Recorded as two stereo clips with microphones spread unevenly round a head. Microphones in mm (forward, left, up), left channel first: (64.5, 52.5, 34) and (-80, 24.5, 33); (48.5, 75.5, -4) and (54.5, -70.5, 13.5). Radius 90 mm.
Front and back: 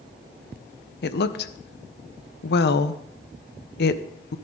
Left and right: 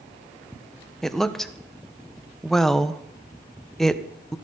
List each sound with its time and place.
1.0 s a woman speaking: 5° left, 1.0 m